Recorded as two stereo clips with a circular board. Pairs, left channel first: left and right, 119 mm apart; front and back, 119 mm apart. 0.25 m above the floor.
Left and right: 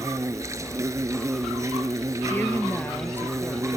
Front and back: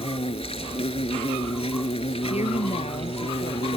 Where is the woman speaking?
15° left.